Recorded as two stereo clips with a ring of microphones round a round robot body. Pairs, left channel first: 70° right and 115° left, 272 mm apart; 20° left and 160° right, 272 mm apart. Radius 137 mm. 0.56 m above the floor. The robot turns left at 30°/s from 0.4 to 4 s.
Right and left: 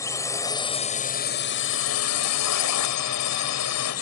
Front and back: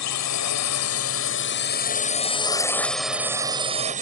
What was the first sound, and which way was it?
A drone, 10° left.